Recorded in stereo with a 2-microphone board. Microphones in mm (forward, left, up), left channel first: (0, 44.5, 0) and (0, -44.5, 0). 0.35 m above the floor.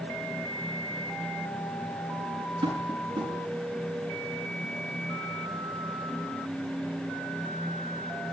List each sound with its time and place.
2.6 s tapping: 60° right (ahead or behind), 5.5 m